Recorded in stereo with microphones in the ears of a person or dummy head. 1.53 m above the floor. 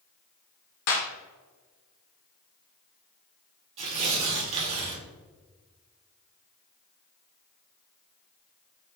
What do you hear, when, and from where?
0.9 s a clap: 55° left (ahead or behind), 0.8 m
3.8 s tearing paper: 35° right (ahead or behind), 0.9 m